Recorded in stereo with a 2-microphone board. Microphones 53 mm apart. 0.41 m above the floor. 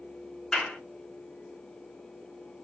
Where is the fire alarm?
I don't hear a fire alarm.